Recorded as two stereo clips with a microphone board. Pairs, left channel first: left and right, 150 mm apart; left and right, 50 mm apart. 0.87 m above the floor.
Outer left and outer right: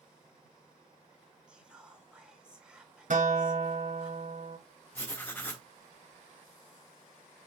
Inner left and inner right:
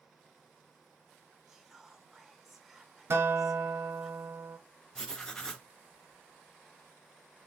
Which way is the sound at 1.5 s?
5° right (ahead or behind).